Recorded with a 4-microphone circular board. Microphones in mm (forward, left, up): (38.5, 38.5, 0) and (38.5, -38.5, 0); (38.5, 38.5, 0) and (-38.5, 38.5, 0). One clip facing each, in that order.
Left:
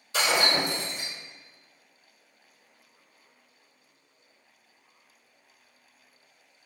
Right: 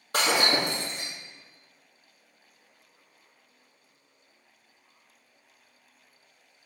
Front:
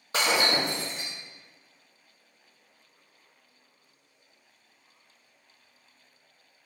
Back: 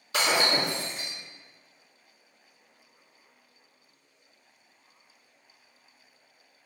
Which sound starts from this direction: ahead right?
Breaking glass, at 0.1 s.